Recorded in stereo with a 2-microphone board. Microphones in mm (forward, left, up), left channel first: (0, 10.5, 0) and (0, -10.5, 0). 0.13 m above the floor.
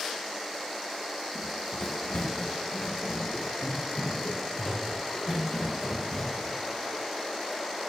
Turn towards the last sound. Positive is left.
turn(degrees=35)  # may be behind; listen again after turning